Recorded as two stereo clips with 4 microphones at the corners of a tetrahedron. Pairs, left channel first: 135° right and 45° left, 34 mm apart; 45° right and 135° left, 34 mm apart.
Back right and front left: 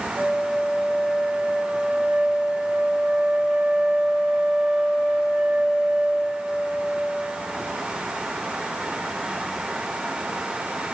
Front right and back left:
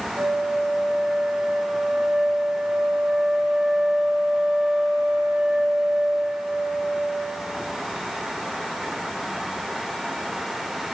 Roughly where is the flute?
Behind left.